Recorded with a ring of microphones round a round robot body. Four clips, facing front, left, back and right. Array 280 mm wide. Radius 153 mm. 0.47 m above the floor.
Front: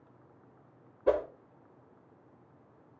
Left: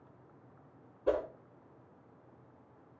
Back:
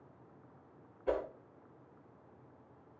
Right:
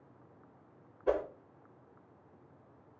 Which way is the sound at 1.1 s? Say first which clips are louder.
Even, front 7 dB; 5° left.